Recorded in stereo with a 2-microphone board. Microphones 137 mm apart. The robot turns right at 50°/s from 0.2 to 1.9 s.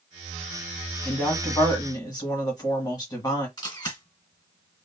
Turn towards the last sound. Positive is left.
turn(degrees=30)  # may be behind; listen again after turning